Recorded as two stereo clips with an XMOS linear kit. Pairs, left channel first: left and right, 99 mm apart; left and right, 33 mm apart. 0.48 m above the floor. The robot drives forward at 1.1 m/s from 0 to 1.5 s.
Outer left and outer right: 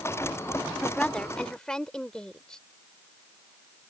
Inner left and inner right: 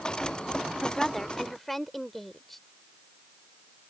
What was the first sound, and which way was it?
A woman speaking, 10° left (ahead or behind).